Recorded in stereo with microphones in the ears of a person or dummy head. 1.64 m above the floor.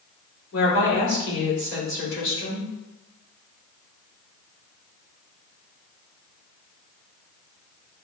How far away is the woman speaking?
About 1.7 m.